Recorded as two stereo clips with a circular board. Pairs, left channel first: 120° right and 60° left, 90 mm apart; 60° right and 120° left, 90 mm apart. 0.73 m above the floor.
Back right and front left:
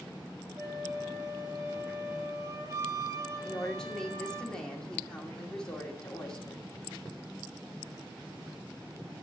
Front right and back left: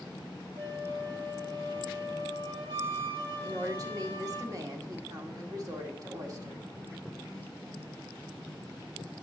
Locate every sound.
0.6 s a flute: 110° left, 1.9 m
3.4 s a woman speaking: 160° left, 2 m